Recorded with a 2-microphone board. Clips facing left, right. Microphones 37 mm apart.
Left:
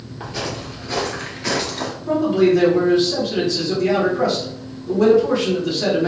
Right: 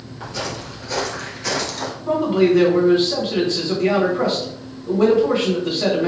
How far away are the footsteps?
About 1.3 m.